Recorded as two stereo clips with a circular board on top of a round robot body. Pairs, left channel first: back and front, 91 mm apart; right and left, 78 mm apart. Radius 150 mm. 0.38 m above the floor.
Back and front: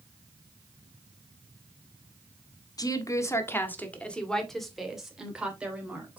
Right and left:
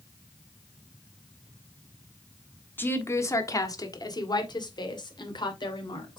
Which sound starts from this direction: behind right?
A woman speaking, at 2.8 s.